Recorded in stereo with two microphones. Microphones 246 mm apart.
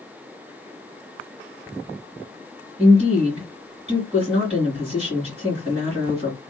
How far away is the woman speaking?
About 2 m.